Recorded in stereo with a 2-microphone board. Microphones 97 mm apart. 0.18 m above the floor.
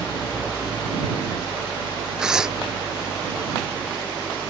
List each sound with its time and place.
0.0 s an engine running: 5° left (ahead or behind)
2.2 s tearing paper: 5° right (ahead or behind)